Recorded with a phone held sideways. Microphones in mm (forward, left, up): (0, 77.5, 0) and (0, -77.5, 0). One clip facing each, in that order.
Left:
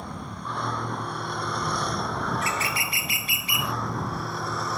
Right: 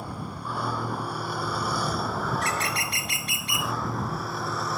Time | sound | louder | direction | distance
0.0 | a vehicle | right 1 dB | 5° right (ahead or behind) | ?
2.3 | a bird | even | centre (ahead or behind) | ?